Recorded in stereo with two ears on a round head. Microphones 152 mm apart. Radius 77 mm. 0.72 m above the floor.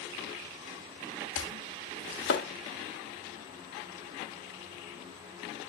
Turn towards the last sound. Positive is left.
turn(degrees=80)